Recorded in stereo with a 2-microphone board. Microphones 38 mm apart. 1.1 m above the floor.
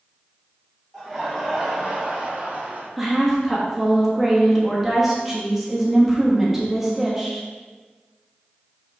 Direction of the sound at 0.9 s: 5° right (ahead or behind).